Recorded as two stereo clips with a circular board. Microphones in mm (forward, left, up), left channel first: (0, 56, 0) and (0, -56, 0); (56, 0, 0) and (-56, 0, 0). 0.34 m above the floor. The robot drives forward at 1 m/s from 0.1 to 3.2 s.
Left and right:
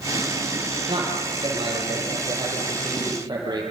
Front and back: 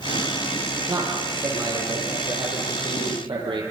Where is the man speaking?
130° right, 8 m; by 3.6 s 140° right, 9.5 m.